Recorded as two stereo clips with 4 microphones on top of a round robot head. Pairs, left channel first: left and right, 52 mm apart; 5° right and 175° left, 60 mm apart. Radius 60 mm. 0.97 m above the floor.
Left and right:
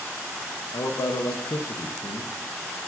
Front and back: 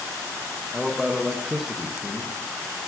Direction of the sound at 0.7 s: 90° left.